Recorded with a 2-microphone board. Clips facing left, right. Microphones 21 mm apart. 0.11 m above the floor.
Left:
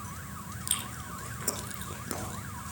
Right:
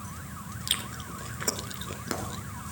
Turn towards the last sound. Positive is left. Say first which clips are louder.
# right 5 dB
turn(degrees=-30)  # may be behind; listen again after turning